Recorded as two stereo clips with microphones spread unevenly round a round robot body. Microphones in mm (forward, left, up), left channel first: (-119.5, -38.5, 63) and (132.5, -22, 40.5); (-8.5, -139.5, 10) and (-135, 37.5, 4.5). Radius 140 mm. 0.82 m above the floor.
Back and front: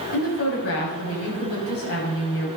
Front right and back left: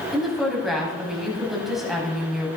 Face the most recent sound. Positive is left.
turn(degrees=-145)